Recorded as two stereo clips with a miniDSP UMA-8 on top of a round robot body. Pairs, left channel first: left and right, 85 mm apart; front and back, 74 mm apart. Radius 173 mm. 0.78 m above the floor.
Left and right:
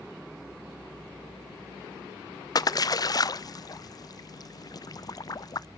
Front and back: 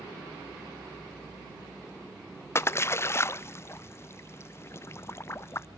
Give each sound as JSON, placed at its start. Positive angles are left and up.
{"t": 2.5, "sound": "a splash", "azimuth_deg": 50, "distance_m": 0.5}